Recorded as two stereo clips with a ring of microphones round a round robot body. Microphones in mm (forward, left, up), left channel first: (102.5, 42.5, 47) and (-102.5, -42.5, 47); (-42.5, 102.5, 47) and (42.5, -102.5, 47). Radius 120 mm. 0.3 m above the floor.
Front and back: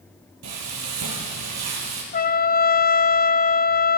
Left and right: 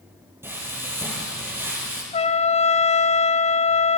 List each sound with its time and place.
0.4 s frying: 145° right, 5 m
2.1 s a trumpet: 60° left, 1.0 m